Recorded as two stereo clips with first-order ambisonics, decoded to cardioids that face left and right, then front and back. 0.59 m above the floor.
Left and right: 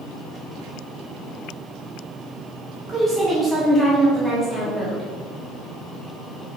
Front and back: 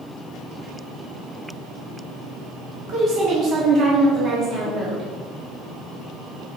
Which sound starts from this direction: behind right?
A woman speaking, at 2.9 s.